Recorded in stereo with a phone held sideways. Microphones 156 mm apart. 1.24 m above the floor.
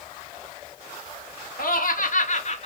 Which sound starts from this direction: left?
Laughter, at 1.6 s.